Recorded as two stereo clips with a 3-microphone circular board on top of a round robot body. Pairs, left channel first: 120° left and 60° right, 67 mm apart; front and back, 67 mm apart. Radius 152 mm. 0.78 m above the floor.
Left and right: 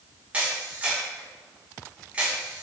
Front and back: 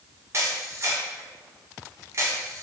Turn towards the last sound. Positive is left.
turn(degrees=-130)